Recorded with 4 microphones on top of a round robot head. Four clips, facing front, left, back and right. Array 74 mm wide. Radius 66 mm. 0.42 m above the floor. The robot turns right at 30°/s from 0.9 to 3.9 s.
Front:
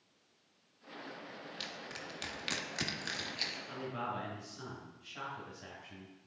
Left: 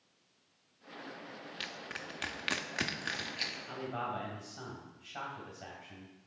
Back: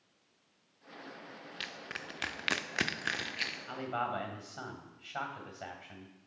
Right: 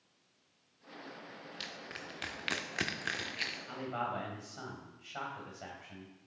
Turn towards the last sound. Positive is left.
turn(degrees=-155)